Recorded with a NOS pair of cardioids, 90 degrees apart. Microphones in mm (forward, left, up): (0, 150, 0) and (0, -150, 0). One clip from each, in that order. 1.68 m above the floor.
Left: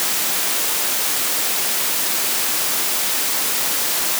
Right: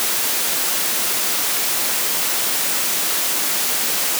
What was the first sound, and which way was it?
Only background noise.